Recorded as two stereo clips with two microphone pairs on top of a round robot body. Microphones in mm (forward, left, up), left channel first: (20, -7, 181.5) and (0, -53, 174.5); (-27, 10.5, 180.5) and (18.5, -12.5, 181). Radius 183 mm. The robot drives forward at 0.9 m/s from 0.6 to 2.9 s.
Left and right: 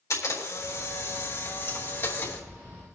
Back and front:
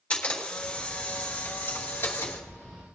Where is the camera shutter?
85° left, 3 m; by 2.4 s 115° left, 3.5 m.